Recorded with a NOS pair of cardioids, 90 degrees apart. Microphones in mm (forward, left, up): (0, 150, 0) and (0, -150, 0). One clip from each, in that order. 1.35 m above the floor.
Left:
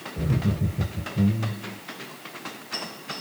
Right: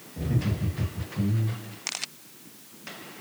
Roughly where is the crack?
No crack in this recording.